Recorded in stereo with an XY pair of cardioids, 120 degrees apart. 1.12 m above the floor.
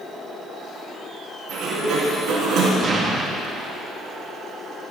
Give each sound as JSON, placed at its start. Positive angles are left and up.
{"t": 1.5, "sound": "a sliding door", "azimuth_deg": -65, "distance_m": 3.5}
{"t": 2.8, "sound": "an explosion", "azimuth_deg": -35, "distance_m": 1.5}